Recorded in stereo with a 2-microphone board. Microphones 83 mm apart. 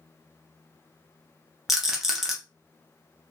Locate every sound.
1.7 s a rattle: 5° right (ahead or behind), 0.8 m